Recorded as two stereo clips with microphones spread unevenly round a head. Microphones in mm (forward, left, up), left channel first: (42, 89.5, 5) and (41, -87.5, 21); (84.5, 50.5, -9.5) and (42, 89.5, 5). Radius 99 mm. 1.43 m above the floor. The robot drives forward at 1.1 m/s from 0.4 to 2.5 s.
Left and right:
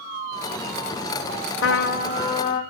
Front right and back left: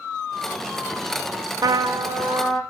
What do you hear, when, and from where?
1.6 s a trumpet: 115° left, 0.5 m; by 2.6 s 160° left, 1.3 m